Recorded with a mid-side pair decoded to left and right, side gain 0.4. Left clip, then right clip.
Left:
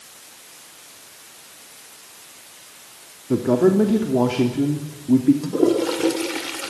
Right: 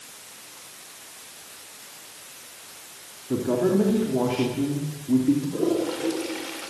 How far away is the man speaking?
About 3 m.